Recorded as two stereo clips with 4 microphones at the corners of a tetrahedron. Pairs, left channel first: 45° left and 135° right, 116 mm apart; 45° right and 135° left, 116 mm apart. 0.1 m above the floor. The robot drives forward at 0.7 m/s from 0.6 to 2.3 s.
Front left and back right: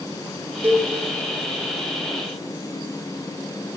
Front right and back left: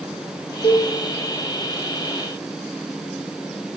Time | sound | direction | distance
0.6 | a cowbell | 60° right | 0.6 m